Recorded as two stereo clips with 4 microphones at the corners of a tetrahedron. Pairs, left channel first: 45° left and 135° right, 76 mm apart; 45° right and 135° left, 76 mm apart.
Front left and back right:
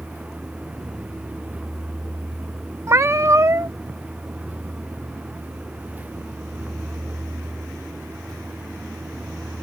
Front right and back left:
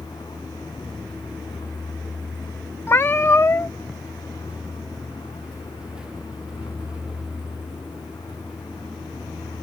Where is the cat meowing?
95° right.